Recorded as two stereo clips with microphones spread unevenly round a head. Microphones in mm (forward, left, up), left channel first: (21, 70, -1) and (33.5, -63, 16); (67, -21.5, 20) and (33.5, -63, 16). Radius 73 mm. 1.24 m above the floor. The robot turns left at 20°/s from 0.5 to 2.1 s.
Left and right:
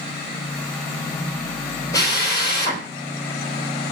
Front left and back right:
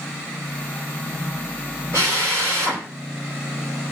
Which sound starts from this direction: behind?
A drill, at 1.9 s.